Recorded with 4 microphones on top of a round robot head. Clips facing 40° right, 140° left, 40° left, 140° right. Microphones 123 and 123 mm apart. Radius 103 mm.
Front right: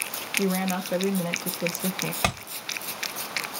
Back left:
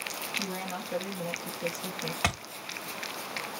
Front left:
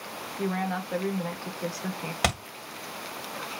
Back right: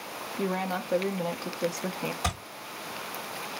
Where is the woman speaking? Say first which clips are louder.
Front right 12 dB, even; 70° right, 0.8 m.